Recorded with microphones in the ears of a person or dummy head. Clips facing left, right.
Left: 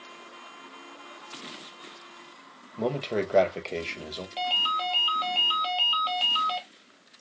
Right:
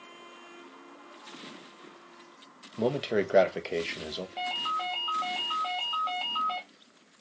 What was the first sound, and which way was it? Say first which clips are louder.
A man speaking: right 1 dB; 15° right (ahead or behind).